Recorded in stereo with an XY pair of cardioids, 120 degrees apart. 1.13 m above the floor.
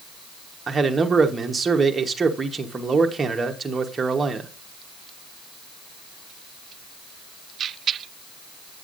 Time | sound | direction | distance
0.7 | a man speaking | 25° right | 1.1 m